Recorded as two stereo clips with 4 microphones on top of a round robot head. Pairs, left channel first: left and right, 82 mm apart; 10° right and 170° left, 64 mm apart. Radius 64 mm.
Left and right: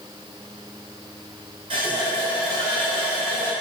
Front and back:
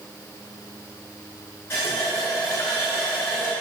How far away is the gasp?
No gasp in this recording.